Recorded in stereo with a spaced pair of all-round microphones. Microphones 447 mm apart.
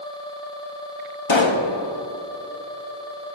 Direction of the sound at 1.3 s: 80° left.